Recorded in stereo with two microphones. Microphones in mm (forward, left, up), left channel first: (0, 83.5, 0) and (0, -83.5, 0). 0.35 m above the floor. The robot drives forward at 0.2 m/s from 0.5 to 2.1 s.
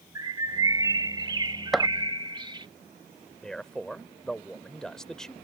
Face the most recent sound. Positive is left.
turn(degrees=5)  # may be behind; listen again after turning